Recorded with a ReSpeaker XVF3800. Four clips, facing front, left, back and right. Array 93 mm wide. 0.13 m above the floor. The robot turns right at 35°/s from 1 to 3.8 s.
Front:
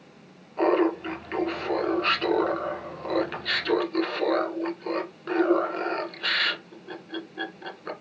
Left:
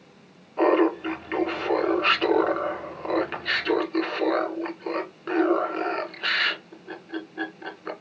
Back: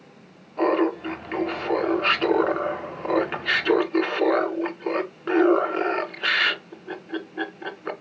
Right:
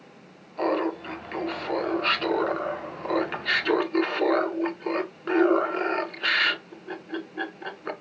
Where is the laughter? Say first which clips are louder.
Left 6 dB, back 1 dB; 95° left, 1.1 m; by 7.9 s 165° right, 1.1 m.